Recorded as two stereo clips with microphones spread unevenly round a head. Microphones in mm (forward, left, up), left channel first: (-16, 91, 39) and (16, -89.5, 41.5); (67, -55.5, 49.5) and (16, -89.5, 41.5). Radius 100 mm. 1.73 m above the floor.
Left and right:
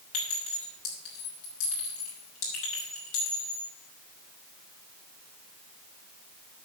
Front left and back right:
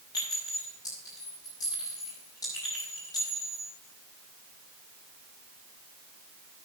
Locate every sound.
0.1 s a clink: 90° left, 5.5 m